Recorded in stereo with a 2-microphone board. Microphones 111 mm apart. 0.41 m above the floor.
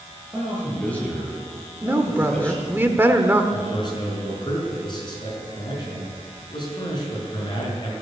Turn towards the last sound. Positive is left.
turn(degrees=40)  # may be behind; listen again after turning